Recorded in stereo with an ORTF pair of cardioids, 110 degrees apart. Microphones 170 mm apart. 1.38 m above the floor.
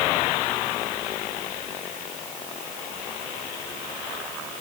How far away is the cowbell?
I don't hear a cowbell.